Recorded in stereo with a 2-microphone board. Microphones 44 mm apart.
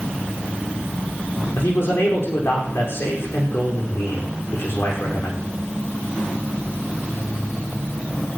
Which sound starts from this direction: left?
A man speaking, at 1.5 s.